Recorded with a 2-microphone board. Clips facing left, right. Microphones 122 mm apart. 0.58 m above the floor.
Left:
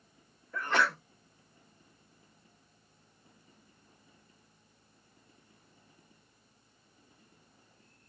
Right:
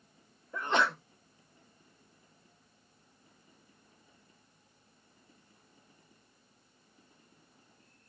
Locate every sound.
0.5 s a sneeze: 20° right (ahead or behind), 0.9 m